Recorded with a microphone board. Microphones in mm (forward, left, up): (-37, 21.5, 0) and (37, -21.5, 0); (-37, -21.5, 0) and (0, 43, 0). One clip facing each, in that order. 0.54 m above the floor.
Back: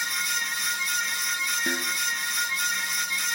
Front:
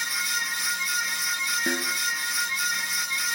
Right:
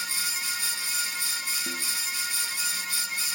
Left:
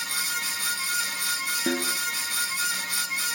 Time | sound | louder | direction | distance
1.7 | a snare drum | front 1 dB, left 8 dB | 45° left | ?